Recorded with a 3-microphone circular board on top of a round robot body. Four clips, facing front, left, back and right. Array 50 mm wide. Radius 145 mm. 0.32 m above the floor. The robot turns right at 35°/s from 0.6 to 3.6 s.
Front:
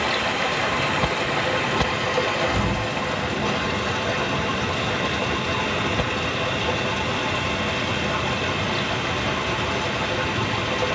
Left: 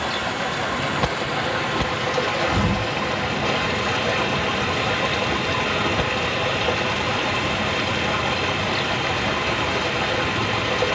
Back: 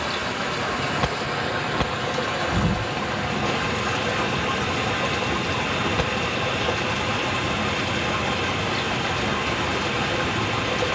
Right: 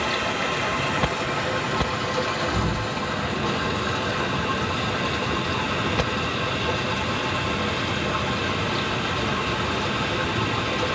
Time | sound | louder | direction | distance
0.0 | running water | even, front 3 dB | 10° right | 1.8 m
2.5 | an explosion | left 3 dB, even | 120° left | 1.1 m